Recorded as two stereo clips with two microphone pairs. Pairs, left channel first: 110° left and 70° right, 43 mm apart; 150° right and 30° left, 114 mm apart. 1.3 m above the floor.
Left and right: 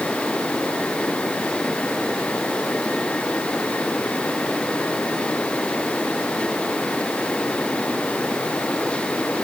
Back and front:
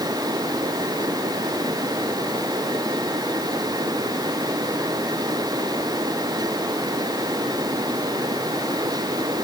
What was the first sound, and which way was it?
Only background noise.